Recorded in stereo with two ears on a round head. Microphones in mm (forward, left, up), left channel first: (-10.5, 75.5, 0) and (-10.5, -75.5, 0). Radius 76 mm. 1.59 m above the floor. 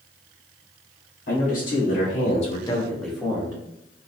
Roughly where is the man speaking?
Left.